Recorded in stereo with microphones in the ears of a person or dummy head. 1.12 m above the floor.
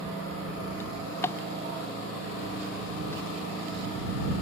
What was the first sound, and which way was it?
A drawer, 15° left (ahead or behind).